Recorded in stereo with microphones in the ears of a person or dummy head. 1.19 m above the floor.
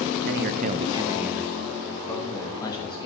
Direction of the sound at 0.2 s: 60° right (ahead or behind).